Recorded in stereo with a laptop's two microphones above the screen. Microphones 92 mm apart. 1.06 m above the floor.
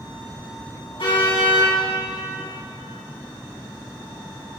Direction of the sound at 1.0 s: 65° left (ahead or behind).